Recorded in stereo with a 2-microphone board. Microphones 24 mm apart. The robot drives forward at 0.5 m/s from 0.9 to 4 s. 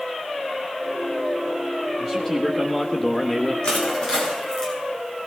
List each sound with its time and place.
2.0 s a man speaking: 10° left (ahead or behind), 1.5 m; by 3.5 s 15° left (ahead or behind), 0.9 m
3.6 s crushing: 50° left (ahead or behind), 6.5 m